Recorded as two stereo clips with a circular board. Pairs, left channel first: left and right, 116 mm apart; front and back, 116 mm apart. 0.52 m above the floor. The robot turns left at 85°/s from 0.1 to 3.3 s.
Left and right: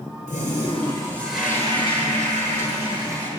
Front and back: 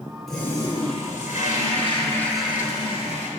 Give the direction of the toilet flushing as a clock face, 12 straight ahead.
9 o'clock.